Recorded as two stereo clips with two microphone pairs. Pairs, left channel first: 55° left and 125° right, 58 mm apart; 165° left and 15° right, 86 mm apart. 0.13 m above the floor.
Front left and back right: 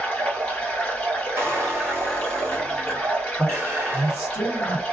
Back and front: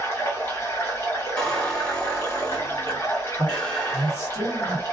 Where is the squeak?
120° right, 1.5 m.